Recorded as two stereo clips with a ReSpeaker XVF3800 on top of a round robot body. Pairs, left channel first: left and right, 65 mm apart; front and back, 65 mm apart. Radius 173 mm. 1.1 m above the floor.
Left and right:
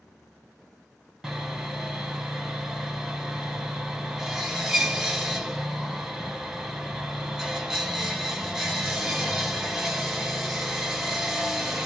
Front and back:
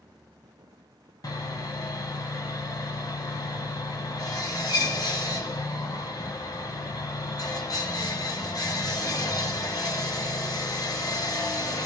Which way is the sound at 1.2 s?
5° right.